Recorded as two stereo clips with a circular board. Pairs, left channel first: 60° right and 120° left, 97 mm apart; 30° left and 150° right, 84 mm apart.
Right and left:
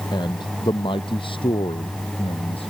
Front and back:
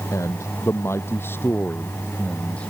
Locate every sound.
0.1 s a man speaking: 20° right; by 2.7 s 50° right